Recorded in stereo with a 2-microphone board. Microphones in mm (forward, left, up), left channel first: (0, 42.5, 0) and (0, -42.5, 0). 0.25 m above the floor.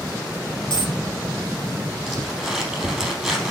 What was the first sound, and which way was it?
A dropped coin, 70° left (ahead or behind).